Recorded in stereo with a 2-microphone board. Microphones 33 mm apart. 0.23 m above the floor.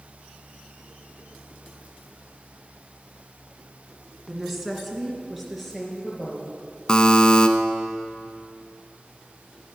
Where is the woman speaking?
10° right (ahead or behind), 1.7 m; by 6.5 s centre (ahead or behind), 4 m.